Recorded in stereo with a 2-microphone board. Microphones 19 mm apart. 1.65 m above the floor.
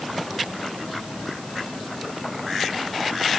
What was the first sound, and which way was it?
Only background noise.